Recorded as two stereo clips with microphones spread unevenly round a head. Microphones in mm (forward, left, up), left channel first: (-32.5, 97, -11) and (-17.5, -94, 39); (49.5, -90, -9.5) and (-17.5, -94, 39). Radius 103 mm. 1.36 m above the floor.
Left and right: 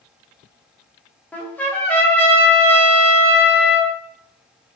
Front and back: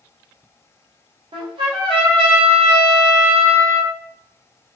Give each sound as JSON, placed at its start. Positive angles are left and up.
{"t": 1.3, "sound": "a trumpet", "azimuth_deg": 175, "distance_m": 1.0}